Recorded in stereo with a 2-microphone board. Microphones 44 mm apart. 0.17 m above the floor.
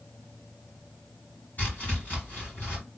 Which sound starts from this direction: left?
Chopping, at 1.6 s.